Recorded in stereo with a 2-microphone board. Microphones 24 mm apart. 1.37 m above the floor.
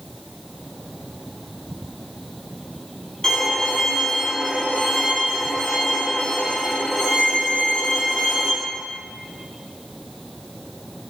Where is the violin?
35° left (ahead or behind), 1.3 m.